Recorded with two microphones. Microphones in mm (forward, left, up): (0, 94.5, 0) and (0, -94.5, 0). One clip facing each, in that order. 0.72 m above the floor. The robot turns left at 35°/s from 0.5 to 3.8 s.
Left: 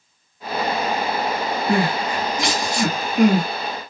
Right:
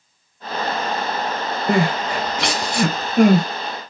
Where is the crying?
60° right (ahead or behind), 0.7 m; by 3.5 s 45° right (ahead or behind), 0.7 m.